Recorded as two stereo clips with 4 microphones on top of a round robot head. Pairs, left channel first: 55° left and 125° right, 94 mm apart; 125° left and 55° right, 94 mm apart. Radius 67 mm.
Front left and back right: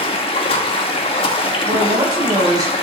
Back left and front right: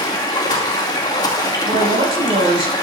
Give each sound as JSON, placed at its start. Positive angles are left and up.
{"t": 0.0, "sound": "running water", "azimuth_deg": 75, "distance_m": 2.0}
{"t": 1.6, "sound": "a man speaking", "azimuth_deg": -80, "distance_m": 7.5}